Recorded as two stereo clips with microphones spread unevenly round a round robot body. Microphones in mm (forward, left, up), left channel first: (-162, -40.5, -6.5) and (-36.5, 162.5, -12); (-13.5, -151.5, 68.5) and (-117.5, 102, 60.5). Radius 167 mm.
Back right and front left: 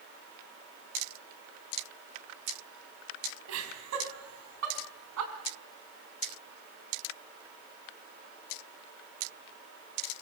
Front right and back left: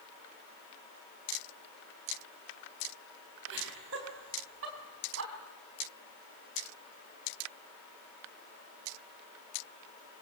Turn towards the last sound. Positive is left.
turn(degrees=60)